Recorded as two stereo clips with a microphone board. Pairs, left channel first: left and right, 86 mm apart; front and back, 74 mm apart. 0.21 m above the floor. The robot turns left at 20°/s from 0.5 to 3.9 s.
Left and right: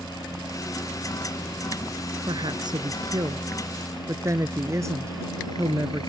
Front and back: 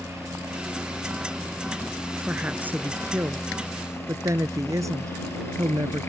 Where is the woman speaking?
105° right; by 6.1 s 140° right.